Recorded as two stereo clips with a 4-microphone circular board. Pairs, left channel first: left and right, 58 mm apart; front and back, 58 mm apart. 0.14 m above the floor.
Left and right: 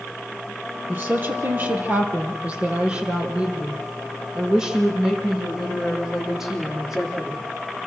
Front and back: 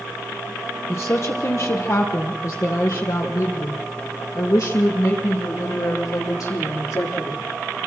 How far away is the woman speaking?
About 4.5 m.